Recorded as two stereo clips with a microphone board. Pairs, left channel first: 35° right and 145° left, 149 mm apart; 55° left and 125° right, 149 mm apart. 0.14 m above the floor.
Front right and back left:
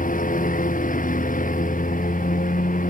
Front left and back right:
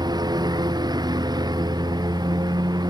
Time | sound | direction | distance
0.0 | a lawn mower | 60° right | ?